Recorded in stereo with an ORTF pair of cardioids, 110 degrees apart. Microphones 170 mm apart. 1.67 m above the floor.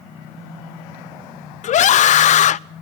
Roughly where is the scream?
Ahead left.